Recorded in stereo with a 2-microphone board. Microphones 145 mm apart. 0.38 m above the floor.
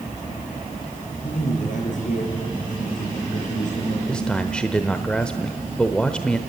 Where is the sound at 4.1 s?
5° left (ahead or behind), 0.9 m.